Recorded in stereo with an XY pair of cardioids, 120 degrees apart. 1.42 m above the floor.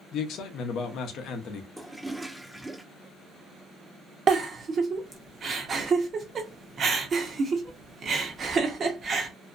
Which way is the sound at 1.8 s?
Straight ahead.